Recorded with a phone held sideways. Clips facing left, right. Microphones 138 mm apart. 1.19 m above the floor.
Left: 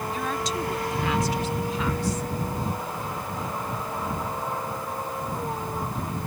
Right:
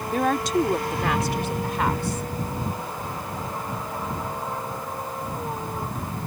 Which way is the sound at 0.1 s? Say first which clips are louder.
Right 10 dB; 60° right (ahead or behind).